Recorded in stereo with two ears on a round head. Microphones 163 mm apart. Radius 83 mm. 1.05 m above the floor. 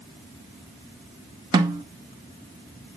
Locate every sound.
1.5 s a snare drum: 25° right (ahead or behind), 1.0 m